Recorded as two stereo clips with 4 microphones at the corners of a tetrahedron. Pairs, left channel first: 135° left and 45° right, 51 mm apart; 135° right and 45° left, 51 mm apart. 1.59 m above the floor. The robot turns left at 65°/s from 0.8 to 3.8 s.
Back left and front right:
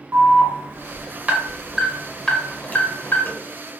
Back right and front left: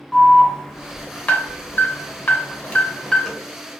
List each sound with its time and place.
0.1 s an alarm: 60° right, 0.9 m; by 3.3 s 135° left, 0.9 m